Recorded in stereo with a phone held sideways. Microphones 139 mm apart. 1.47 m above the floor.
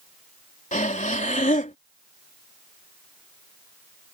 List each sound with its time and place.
0.7 s breathing: 65° left (ahead or behind)